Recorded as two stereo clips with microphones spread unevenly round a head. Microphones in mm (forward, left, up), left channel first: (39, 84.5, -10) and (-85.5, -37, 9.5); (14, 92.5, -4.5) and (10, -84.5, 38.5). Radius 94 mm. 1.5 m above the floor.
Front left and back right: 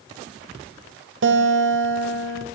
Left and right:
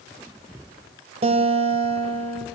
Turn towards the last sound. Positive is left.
turn(degrees=-150)